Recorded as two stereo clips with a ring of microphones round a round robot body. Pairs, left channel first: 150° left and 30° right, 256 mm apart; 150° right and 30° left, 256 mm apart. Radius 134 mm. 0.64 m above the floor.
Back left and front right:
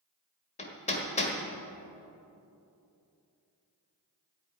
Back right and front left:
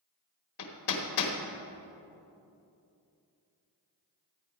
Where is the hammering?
145° right, 1.6 m.